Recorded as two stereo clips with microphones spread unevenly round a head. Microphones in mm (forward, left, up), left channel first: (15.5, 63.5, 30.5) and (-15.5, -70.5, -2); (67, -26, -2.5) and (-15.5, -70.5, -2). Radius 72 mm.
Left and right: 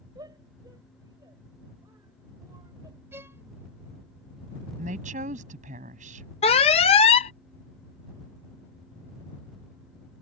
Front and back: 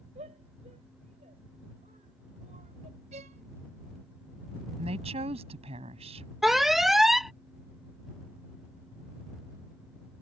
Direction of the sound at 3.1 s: Straight behind.